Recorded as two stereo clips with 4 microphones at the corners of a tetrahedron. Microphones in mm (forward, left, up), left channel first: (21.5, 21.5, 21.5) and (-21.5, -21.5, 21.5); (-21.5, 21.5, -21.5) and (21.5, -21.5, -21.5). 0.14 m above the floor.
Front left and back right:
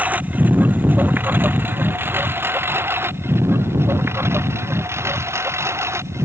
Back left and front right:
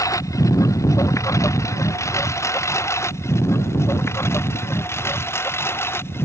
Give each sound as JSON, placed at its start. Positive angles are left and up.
{"t": 0.0, "sound": "a lawn mower", "azimuth_deg": 160}